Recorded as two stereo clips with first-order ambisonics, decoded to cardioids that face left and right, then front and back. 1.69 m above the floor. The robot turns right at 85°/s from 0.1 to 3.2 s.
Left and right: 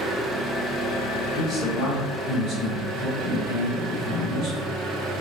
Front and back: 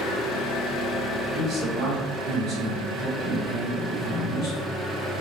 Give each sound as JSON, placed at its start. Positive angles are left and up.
{"t": 0.0, "sound": "an engine running", "azimuth_deg": -20, "distance_m": 0.7}
{"t": 1.3, "sound": "a man speaking", "azimuth_deg": 145, "distance_m": 1.6}